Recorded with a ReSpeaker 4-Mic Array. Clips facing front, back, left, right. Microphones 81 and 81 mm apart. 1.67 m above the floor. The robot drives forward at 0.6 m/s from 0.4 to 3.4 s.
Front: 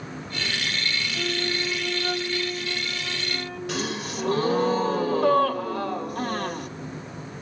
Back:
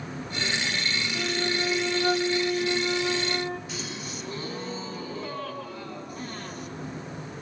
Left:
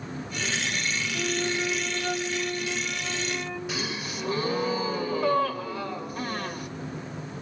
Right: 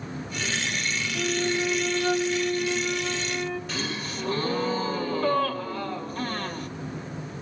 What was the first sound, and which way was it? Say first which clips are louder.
A flute: back 1 dB, right 3 dB; 165° right.